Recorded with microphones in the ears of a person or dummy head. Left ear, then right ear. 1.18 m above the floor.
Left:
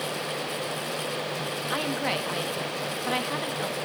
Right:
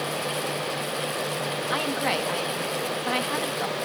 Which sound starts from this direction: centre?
A woman speaking, at 1.7 s.